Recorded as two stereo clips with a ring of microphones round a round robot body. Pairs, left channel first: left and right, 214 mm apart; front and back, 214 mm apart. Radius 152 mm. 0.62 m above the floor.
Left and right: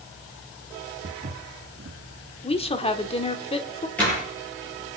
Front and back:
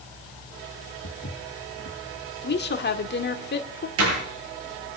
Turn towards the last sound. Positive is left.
turn(degrees=175)